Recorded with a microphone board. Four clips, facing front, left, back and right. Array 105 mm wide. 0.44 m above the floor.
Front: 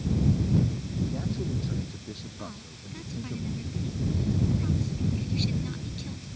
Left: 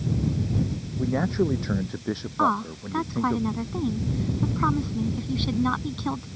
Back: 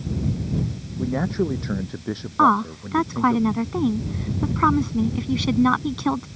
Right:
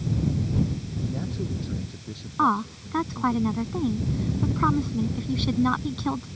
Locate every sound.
1.0 s a man speaking: 135° left
2.4 s a woman speaking: straight behind